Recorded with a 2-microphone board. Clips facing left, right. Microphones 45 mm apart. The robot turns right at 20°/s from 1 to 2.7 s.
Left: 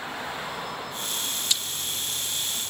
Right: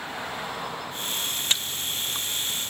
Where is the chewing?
35° right (ahead or behind), 1.0 m; by 2.7 s 55° right (ahead or behind), 1.0 m.